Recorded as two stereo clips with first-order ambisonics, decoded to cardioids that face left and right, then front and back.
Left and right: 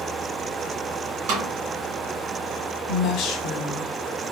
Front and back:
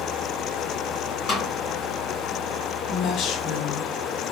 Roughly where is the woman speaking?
Ahead left.